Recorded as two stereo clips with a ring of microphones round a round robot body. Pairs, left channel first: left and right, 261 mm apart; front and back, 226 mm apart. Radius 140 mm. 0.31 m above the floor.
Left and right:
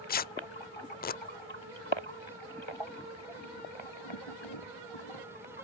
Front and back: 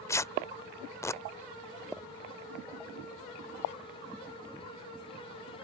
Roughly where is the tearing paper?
Left.